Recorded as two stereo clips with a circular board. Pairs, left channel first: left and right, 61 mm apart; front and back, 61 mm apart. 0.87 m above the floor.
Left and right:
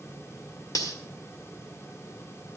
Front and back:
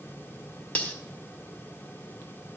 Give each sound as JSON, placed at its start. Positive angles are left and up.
{"t": 0.8, "sound": "cutlery clinking", "azimuth_deg": 70, "distance_m": 1.9}